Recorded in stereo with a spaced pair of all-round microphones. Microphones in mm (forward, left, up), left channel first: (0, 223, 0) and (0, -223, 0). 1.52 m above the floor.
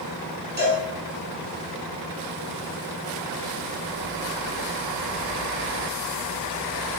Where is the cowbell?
20° right (ahead or behind), 7 m.